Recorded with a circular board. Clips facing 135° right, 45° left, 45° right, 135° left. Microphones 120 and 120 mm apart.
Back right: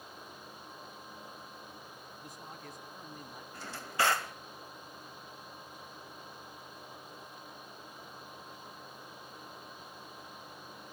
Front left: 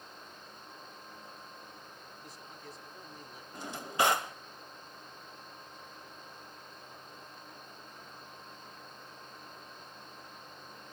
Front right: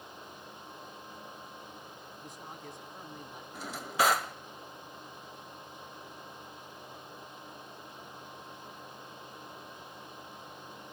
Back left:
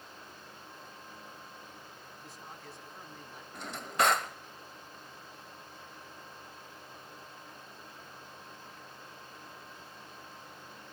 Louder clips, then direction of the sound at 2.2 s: Back right 2 dB, front right 3 dB; 115° right.